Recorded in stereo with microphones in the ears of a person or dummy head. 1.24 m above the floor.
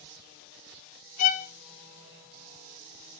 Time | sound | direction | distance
1.2 | a violin | 40° left (ahead or behind) | 0.5 m